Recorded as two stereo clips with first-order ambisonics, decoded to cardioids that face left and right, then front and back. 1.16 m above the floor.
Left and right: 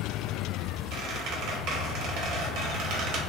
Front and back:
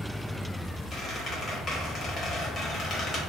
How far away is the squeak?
About 0.7 m.